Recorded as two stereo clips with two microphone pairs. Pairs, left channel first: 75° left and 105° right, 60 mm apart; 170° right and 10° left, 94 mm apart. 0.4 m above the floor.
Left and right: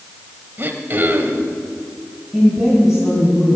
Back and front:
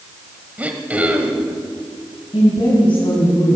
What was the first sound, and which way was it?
Throat clearing, 60° right.